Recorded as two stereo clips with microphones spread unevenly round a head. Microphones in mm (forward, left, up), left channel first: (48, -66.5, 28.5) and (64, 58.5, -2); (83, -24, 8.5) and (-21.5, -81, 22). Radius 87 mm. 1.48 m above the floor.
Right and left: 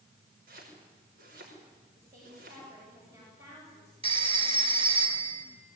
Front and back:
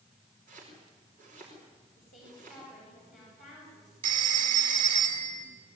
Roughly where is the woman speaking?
Ahead.